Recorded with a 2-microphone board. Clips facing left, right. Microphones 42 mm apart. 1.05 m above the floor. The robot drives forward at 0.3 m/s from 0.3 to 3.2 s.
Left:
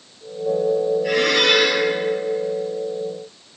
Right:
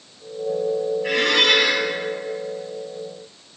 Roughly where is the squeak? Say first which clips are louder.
Right 2 dB; right.